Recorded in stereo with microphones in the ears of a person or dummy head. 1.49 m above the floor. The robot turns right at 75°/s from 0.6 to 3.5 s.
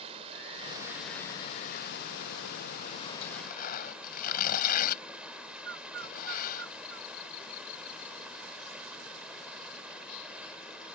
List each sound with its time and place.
0.0 s running water: 30° right; by 11.0 s 170° right
3.2 s tearing paper: 35° left (ahead or behind); by 6.7 s 50° left (ahead or behind)
5.7 s a bird: 65° right (ahead or behind)